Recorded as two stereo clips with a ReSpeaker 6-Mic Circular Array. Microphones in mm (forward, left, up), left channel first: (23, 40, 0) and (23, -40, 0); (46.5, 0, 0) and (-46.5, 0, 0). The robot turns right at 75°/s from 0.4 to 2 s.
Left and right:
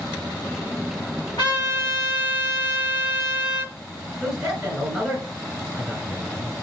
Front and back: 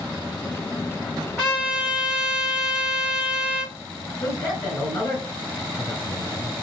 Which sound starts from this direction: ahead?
A man speaking, at 4.2 s.